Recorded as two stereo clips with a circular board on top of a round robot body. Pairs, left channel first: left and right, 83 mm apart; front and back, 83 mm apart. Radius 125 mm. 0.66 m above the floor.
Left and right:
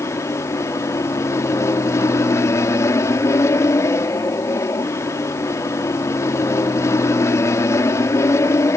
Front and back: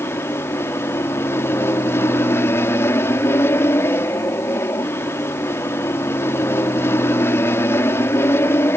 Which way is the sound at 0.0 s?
50° left.